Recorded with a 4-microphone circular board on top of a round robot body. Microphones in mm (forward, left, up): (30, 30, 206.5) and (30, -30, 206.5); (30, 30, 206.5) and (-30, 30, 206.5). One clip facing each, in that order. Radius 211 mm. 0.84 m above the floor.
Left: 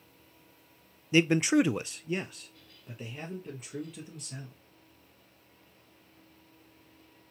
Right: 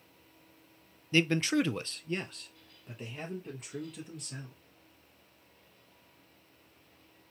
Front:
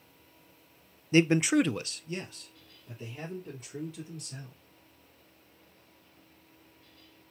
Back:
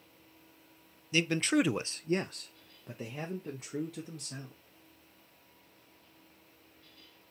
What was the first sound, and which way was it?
A man speaking, 20° left.